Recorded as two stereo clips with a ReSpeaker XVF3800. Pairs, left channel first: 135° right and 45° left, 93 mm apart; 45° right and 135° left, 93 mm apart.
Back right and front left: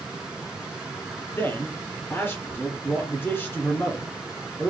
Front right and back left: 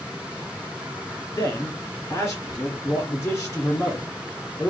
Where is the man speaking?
95° right, 1.5 m.